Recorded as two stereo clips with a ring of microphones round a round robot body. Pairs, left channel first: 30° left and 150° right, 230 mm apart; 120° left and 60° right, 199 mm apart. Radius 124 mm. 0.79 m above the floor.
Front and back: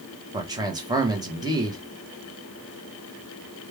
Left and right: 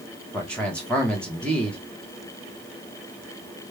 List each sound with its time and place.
0.3 s a man speaking: 170° right, 1.0 m